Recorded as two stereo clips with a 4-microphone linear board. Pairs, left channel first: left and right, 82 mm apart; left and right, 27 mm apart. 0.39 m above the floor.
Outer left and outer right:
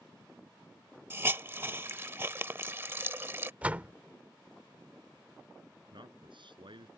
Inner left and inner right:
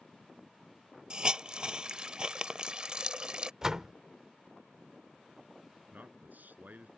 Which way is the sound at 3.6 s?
20° right (ahead or behind).